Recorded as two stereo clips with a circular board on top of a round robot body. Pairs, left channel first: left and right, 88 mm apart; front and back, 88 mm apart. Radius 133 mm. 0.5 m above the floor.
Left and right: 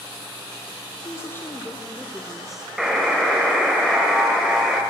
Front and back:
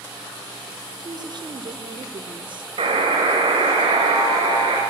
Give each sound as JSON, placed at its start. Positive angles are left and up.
{"t": 1.0, "sound": "a woman speaking", "azimuth_deg": 145, "distance_m": 2.5}
{"t": 2.8, "sound": "a buzzer", "azimuth_deg": -175, "distance_m": 3.5}